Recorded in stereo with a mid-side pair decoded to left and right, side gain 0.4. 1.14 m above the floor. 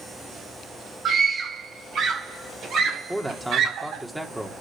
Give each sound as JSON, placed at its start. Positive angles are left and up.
{"t": 1.1, "sound": "a scream", "azimuth_deg": -60, "distance_m": 5.5}
{"t": 3.1, "sound": "a man speaking", "azimuth_deg": -10, "distance_m": 3.0}